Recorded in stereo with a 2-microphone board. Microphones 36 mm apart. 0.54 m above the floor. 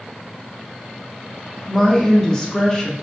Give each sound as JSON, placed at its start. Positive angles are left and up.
{"t": 1.7, "sound": "a woman speaking", "side_deg": 15, "distance_m": 0.7}